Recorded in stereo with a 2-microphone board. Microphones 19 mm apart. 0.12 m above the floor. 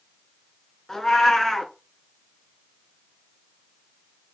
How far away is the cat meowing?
About 0.6 m.